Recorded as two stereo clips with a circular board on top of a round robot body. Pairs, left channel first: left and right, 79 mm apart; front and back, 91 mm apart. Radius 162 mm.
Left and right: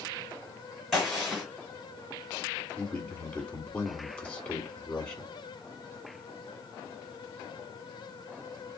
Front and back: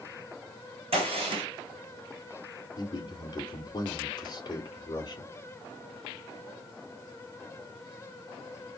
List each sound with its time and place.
0.9 s a gunshot: straight behind, 1.8 m
2.8 s a man speaking: 25° left, 2.5 m